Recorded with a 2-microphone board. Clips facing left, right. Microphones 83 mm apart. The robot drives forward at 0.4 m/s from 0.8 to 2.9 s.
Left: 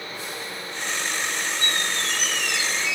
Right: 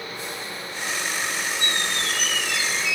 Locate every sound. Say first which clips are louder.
1.6 s a squeak: even; 15° left (ahead or behind), 9 m